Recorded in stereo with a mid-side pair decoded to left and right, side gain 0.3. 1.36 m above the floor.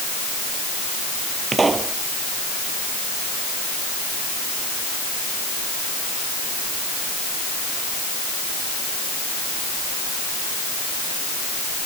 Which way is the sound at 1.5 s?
40° right.